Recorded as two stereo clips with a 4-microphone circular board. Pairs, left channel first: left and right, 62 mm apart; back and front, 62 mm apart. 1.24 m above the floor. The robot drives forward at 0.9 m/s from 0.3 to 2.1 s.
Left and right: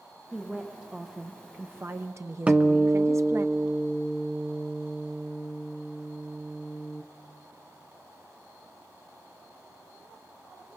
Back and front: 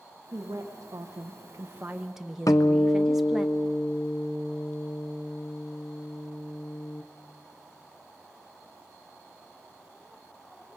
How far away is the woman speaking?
About 1.8 m.